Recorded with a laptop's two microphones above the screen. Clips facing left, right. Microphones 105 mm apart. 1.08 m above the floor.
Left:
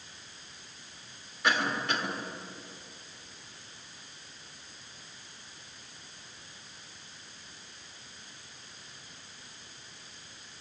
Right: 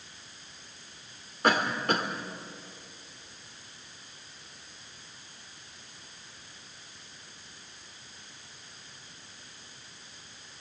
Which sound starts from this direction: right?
A cough, at 1.4 s.